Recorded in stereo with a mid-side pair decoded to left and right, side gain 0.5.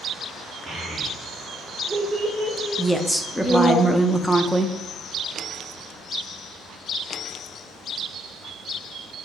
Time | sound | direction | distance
0.7 | a child speaking | 30° right | 1.6 m
2.8 | a woman speaking | straight ahead | 0.5 m